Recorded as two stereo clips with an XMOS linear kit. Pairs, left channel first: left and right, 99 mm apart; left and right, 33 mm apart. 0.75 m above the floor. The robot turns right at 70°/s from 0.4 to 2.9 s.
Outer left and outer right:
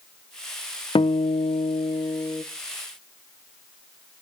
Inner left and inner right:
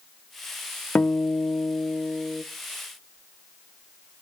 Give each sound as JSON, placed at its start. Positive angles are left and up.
{"t": 0.9, "sound": "a guitar", "azimuth_deg": 60, "distance_m": 0.6}